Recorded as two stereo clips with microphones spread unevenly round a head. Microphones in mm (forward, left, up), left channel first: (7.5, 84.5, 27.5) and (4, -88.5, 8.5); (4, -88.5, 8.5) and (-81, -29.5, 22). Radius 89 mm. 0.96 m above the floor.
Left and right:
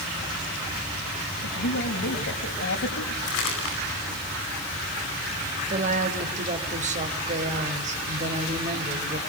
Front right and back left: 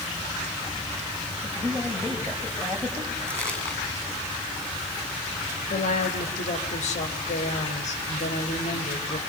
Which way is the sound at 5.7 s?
40° right.